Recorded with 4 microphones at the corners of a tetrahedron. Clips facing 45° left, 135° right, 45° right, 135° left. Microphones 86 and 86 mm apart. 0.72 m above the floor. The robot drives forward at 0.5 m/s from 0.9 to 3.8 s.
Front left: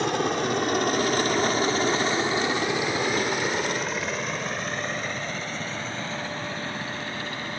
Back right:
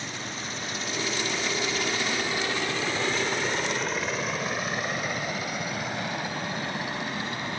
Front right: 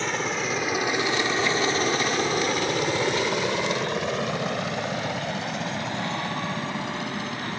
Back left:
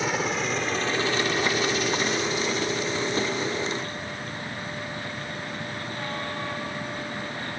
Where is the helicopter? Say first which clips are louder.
Front left 12 dB, back left 1 dB; 50° left; by 7.6 s 60° right.